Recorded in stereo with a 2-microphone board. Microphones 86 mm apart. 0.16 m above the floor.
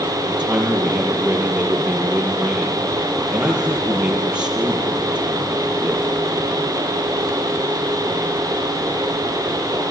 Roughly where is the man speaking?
Centre.